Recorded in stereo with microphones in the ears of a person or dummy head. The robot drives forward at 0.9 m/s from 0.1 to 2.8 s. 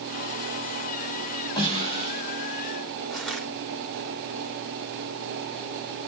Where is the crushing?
Centre (ahead or behind), 1.7 m.